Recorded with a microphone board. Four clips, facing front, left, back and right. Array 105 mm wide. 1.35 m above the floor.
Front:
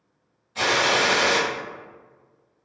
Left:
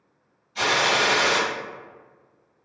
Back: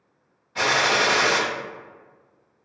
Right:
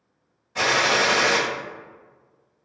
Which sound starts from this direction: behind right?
A gunshot, at 0.6 s.